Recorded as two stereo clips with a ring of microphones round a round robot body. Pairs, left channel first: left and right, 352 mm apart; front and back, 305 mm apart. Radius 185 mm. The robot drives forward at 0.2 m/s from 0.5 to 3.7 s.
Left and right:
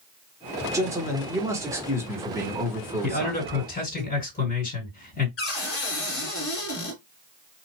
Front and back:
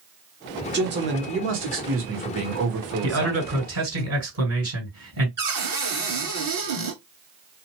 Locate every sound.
0.7 s a man speaking: 165° right, 1.3 m; by 4.0 s 170° right, 1.7 m
3.0 s a man speaking: 155° left, 2.5 m
5.4 s a cupboard door: 145° left, 2 m